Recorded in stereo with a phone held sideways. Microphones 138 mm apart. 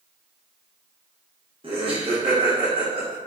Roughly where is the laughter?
Right.